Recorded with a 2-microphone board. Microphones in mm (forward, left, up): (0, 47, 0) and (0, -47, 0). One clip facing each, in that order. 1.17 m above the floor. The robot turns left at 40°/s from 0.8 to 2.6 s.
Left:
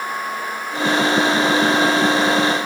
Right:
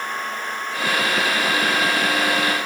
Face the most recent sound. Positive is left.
No sound to turn to.